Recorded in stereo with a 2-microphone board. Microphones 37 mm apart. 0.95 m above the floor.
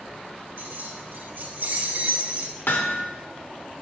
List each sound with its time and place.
0.6 s keys jangling: 90° right, 3 m; by 2.6 s 35° right (ahead or behind), 1.9 m
2.7 s hammering: 65° left (ahead or behind), 1.2 m